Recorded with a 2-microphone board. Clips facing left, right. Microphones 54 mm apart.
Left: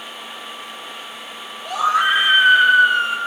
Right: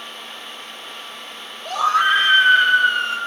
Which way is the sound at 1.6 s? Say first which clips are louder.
Even; 5° left (ahead or behind).